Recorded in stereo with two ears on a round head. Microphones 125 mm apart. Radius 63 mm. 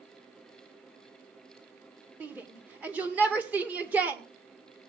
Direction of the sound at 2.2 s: 10° right (ahead or behind).